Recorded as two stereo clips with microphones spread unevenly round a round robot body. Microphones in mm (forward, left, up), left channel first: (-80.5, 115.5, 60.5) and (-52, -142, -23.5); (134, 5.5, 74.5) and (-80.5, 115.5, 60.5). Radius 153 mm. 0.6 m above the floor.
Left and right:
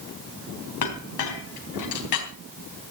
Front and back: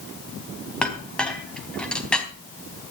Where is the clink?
60° left, 3.5 m.